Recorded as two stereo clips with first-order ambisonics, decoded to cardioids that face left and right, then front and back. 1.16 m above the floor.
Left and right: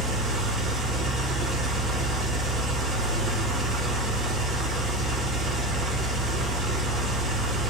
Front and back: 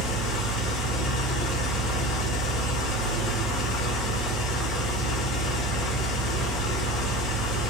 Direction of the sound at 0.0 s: 25° right.